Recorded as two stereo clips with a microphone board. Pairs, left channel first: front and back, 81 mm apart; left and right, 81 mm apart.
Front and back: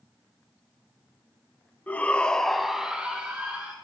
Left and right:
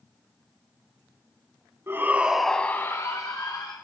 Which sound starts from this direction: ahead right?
A shout, at 1.9 s.